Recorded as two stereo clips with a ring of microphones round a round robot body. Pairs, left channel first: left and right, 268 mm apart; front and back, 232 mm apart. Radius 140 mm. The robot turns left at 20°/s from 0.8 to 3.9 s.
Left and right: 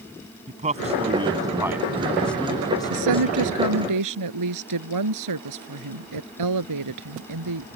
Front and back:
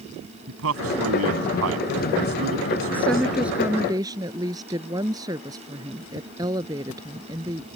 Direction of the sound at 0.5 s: 155° right.